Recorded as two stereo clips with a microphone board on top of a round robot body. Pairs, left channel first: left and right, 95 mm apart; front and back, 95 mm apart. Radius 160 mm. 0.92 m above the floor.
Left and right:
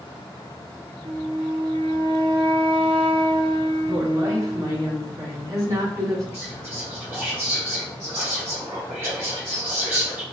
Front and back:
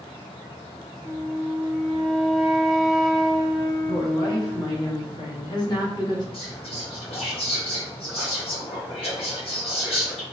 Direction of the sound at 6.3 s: 25° right.